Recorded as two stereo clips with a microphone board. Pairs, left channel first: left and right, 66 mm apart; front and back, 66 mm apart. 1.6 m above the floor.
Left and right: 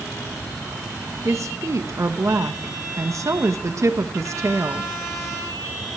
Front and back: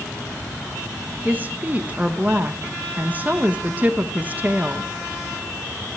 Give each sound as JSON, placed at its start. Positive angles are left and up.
{"t": 1.2, "sound": "a woman speaking", "azimuth_deg": -120, "distance_m": 1.3}